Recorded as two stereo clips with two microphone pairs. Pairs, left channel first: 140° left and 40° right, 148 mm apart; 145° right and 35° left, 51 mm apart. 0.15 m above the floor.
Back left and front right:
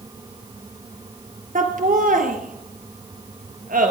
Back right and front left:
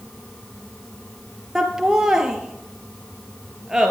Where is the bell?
I don't hear a bell.